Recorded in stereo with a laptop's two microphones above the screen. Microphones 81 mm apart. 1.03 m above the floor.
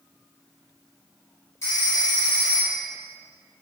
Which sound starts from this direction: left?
A phone ringing, at 1.6 s.